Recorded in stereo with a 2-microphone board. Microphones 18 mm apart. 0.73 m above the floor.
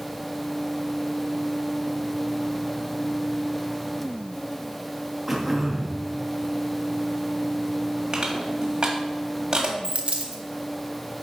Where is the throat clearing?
10° right (ahead or behind), 1.2 m.